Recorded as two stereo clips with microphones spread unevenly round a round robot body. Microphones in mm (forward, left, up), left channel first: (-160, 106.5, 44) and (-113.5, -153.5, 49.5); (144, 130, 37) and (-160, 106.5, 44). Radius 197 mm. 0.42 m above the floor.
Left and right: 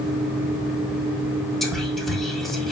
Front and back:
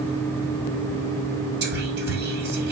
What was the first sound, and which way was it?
Whispering, 175° right.